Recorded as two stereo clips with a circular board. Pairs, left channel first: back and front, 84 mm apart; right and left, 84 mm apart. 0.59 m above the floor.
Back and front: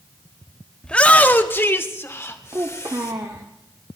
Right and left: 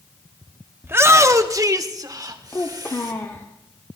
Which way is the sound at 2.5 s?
35° right.